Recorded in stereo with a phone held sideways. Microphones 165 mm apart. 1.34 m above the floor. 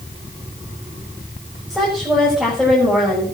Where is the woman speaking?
5° right (ahead or behind), 6.5 m.